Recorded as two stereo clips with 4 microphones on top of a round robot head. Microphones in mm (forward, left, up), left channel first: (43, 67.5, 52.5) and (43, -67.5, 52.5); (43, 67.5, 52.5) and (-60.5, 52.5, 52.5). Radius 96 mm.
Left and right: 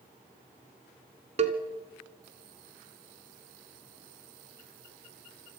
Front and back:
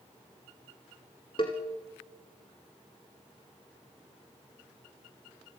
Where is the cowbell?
55° right, 1.3 m.